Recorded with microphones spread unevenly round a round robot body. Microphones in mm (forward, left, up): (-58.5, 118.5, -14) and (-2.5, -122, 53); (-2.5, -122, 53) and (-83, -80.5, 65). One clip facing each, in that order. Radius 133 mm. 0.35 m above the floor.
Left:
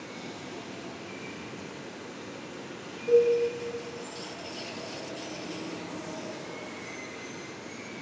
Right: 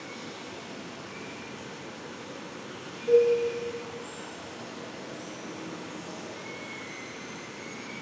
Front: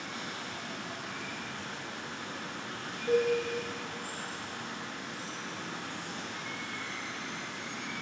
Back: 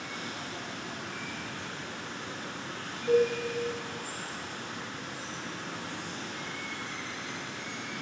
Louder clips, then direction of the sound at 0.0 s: Left 1 dB, back 1 dB; 10° right.